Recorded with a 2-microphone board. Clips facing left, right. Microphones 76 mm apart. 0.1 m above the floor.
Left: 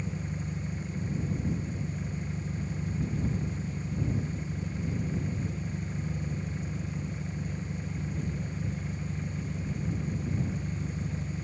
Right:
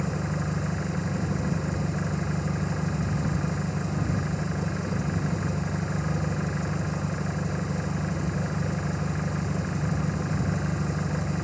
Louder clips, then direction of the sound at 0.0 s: Right 7 dB; 75° right (ahead or behind).